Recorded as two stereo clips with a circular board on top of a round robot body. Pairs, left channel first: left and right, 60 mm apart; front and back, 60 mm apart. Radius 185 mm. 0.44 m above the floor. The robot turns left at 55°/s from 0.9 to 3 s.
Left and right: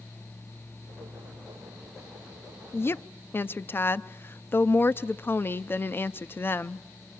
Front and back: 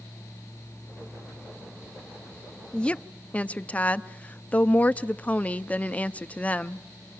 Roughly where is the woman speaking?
Left.